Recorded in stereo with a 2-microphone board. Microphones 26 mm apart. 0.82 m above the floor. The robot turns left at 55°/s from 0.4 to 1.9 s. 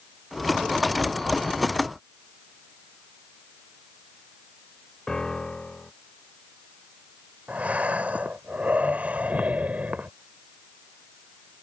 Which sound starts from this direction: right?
Breathing, at 7.5 s.